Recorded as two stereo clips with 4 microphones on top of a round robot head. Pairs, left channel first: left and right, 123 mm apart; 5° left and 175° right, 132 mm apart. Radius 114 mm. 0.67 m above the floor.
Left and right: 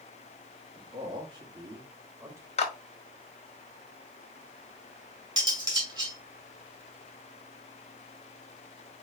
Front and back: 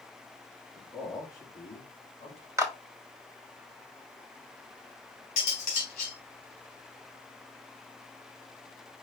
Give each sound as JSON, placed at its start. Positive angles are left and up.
{"t": 0.8, "sound": "a man speaking", "azimuth_deg": -70, "distance_m": 1.7}
{"t": 2.6, "sound": "a clap", "azimuth_deg": 115, "distance_m": 1.4}
{"t": 5.4, "sound": "cutlery clinking", "azimuth_deg": -40, "distance_m": 3.0}